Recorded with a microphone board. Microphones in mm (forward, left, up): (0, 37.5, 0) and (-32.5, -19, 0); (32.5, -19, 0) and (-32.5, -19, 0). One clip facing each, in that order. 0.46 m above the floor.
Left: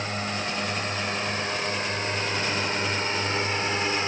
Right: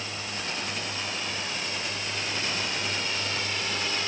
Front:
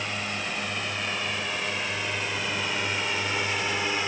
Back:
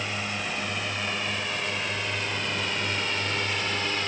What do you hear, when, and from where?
0.0 s a drone: 90° left; by 4.1 s 65° left